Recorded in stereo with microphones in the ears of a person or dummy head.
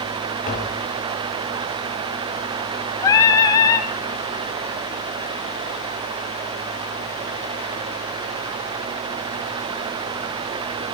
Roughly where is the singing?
Left.